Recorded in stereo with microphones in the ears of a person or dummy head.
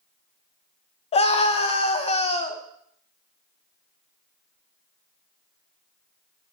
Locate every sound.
1.1 s a scream: 35° left (ahead or behind), 0.7 m